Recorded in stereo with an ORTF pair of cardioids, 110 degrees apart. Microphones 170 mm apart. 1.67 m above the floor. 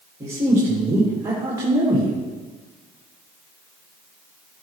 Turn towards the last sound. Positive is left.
turn(degrees=-25)